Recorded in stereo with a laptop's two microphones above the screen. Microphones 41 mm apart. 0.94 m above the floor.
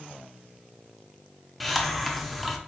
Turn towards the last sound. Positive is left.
turn(degrees=0)  # may be behind; listen again after turning